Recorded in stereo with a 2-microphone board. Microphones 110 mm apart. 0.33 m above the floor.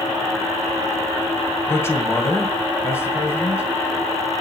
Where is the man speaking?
20° left (ahead or behind), 2 m.